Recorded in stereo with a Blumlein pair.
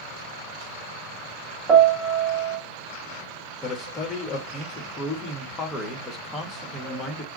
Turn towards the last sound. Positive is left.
turn(degrees=20)